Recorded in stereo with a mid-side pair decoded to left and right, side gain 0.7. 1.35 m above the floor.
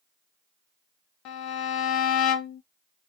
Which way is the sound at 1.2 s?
60° left.